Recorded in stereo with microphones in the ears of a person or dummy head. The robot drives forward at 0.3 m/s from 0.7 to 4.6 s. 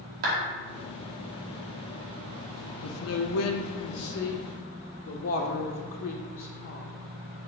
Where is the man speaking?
75° left (ahead or behind), 0.5 m; by 6.9 s 50° left (ahead or behind), 0.6 m.